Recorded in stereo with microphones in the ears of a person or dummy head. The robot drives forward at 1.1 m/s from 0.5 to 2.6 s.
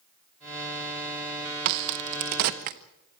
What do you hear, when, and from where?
1.6 s a crack: 55° right (ahead or behind), 0.9 m; by 2.8 s 45° right (ahead or behind), 1.1 m